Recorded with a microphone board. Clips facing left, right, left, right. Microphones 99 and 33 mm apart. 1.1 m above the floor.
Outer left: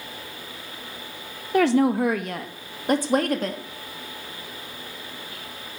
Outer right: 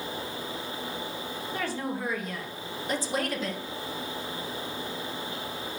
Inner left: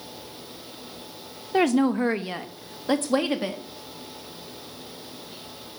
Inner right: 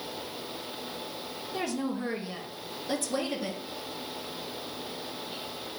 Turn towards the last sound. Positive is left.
turn(degrees=55)  # may be behind; listen again after turning